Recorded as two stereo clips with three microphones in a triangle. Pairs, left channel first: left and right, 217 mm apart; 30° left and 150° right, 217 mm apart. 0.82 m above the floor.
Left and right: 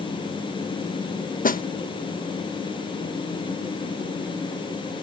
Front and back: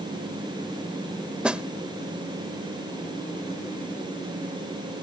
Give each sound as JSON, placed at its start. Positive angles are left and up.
{"t": 1.4, "sound": "a snare drum", "azimuth_deg": 125}